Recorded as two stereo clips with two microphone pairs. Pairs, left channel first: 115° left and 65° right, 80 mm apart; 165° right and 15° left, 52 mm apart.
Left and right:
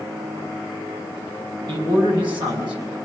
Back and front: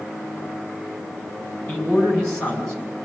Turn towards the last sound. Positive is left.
turn(degrees=-90)